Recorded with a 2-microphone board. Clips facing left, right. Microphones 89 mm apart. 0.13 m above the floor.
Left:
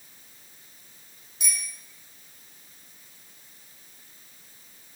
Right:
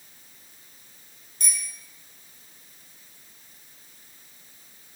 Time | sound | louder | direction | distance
1.4 | a bicycle bell | left 1 dB | 5° left (ahead or behind) | 4 m